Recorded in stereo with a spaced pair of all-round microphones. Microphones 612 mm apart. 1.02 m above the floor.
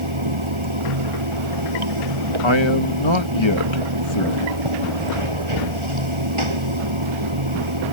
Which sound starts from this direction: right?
Running water, at 0.0 s.